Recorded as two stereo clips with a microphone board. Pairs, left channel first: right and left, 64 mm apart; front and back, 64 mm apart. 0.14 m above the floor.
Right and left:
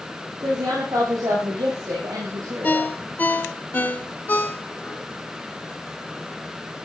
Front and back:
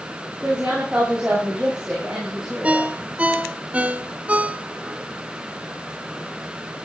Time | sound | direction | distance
0.4 | a woman speaking | 105° left | 5.5 m
2.6 | a ringtone | 130° right | 0.9 m